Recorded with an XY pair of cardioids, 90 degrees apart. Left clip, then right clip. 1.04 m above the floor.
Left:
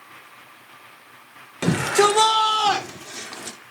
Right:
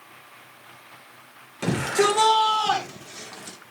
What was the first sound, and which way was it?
A shout, 50° left.